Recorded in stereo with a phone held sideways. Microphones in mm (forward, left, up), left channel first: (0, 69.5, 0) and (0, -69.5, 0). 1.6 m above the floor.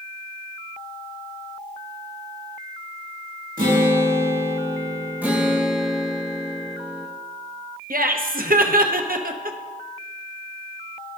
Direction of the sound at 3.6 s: 70° right (ahead or behind).